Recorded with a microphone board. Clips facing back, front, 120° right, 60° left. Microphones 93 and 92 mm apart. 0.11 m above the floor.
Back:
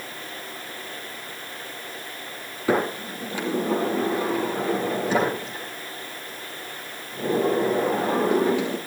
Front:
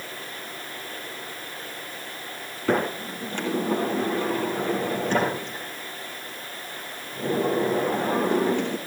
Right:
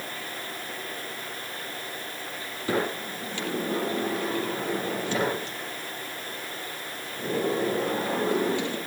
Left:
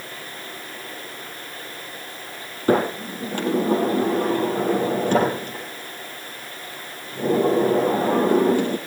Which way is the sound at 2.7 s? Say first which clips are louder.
Back 1 dB, left 8 dB; 100° left.